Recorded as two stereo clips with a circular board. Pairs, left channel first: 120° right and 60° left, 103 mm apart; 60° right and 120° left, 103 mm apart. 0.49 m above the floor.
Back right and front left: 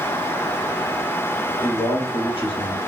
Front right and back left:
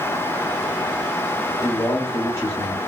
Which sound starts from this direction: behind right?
A man speaking, at 1.6 s.